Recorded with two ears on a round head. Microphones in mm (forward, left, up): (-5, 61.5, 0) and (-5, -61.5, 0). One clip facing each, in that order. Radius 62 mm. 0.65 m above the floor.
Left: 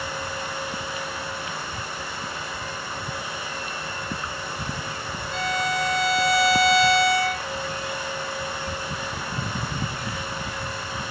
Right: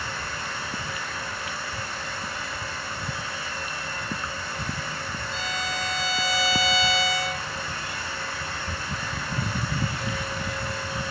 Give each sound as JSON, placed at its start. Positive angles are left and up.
{"t": 5.3, "sound": "a violin", "side_deg": 50, "distance_m": 0.7}